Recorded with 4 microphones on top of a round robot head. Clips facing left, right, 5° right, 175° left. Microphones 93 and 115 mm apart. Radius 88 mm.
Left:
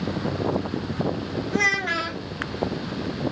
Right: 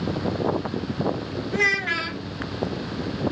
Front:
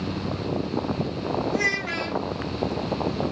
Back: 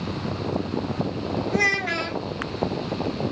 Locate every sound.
1.5 s a child speaking: 155° left, 0.8 m